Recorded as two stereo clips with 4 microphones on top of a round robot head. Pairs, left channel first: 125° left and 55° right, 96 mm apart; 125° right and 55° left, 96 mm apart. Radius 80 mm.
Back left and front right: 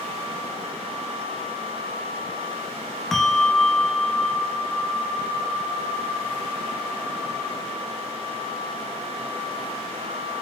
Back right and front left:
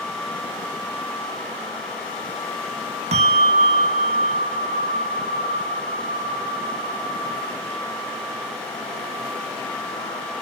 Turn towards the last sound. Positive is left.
turn(degrees=40)